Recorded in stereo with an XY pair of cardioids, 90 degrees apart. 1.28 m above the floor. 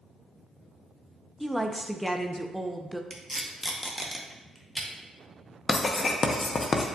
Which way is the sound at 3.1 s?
Straight ahead.